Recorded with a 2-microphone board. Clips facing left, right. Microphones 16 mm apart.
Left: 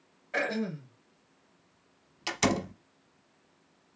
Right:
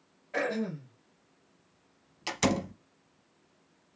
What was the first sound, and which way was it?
Throat clearing, 30° left (ahead or behind).